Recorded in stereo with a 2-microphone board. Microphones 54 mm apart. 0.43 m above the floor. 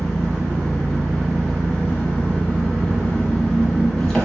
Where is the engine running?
10° left (ahead or behind), 1.0 m.